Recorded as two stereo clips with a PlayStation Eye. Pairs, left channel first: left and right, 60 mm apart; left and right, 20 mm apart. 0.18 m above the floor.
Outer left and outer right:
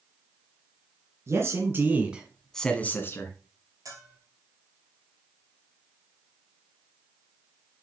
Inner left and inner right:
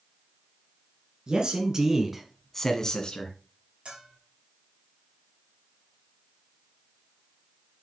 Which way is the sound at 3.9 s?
65° right (ahead or behind).